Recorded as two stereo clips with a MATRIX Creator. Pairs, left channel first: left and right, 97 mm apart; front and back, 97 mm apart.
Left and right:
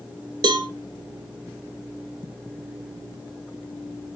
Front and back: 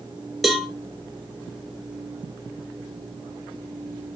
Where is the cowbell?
90° right, 0.7 m.